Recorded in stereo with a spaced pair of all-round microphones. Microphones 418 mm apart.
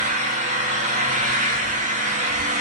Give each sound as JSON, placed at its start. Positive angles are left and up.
{"t": 0.0, "sound": "an engine running", "side_deg": -15, "distance_m": 1.1}